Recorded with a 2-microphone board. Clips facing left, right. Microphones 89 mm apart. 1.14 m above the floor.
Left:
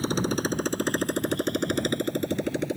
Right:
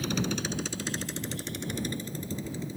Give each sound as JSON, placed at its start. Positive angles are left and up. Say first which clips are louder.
{"t": 0.0, "sound": "a motorcycle", "louder": "left 5 dB", "side_deg": 35}